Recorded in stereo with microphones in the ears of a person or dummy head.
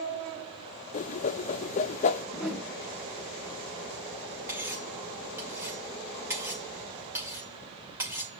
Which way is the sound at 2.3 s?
5° right (ahead or behind).